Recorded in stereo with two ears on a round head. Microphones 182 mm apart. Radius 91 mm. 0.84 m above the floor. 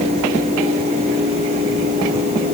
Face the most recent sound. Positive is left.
No sound to turn to.